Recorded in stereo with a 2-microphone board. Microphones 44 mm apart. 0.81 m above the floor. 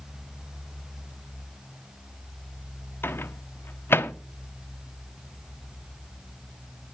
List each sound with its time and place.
3.0 s a microwave: 60° left (ahead or behind), 1.0 m